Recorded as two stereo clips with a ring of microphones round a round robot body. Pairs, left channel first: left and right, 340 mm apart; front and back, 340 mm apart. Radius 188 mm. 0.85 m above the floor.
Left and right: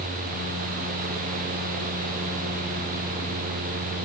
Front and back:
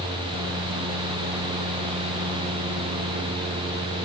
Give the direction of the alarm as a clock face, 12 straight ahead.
I don't hear an alarm.